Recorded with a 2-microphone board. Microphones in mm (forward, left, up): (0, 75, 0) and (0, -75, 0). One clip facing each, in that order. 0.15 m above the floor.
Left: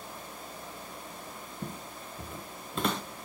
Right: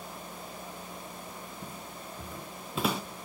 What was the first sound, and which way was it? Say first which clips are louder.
Footsteps: left 2 dB; 45° left (ahead or behind).